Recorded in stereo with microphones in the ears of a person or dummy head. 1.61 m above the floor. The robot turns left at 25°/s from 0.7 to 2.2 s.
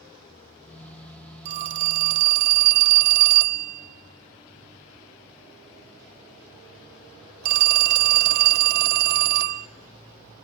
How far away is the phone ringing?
About 0.9 m.